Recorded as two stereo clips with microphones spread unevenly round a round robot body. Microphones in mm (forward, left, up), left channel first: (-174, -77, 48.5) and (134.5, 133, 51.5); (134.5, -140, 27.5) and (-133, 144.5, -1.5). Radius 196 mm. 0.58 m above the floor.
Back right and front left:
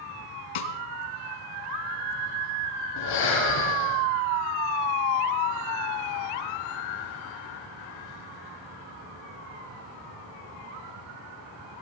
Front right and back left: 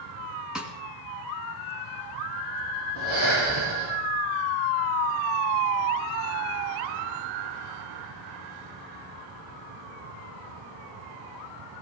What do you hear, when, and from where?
0.6 s a snare drum: 140° right, 1.9 m
3.0 s breathing: 170° left, 7 m